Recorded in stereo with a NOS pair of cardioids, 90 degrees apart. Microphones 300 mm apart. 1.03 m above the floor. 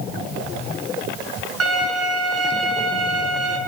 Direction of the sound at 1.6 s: 55° right.